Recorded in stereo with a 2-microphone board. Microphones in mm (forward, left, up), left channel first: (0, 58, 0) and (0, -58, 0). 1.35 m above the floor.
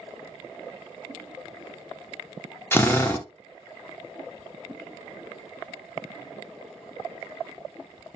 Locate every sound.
2.7 s a drill: 20° left (ahead or behind), 0.5 m